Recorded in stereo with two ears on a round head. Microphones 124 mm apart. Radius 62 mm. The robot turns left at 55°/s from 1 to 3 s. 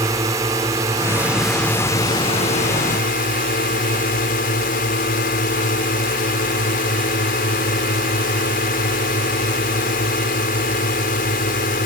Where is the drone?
155° right; by 11.9 s 95° left.